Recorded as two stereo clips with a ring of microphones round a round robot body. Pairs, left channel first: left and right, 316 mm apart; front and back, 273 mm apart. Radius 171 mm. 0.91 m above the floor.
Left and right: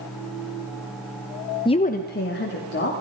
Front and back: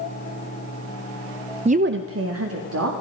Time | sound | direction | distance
1.6 | a woman speaking | 145° left | 0.6 m